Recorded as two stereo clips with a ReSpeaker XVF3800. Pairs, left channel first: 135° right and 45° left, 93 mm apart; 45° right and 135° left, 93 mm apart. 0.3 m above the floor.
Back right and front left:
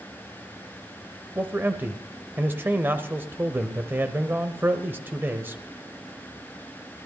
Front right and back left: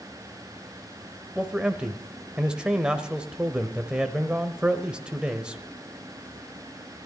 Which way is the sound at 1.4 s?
70° left.